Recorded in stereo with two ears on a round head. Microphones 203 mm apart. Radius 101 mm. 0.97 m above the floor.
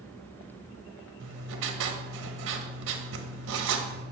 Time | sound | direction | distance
1.2 | writing | 60° right (ahead or behind) | 0.9 m